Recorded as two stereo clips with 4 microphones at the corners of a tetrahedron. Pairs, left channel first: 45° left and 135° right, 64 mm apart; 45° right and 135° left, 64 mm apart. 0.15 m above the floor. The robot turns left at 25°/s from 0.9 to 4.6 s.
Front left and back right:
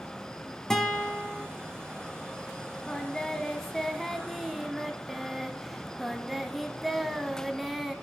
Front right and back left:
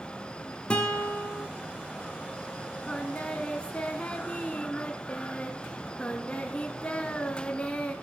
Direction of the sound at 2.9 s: 5° right.